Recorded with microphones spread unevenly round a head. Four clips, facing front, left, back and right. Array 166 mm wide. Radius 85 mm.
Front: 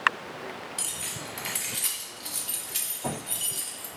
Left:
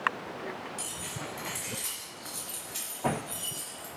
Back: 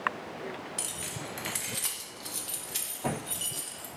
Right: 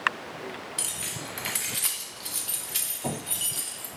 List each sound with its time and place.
0.8 s keys jangling: 115° right, 0.6 m